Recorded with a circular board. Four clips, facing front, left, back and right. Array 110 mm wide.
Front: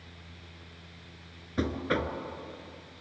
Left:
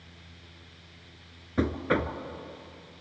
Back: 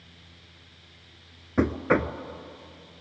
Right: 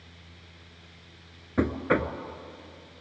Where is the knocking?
160° right, 0.9 m.